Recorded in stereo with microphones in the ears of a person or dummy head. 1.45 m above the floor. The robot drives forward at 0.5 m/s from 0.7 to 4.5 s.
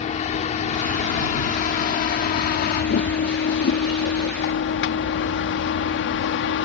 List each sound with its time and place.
0.0 s a vehicle: 40° left (ahead or behind); by 6.7 s 75° left (ahead or behind)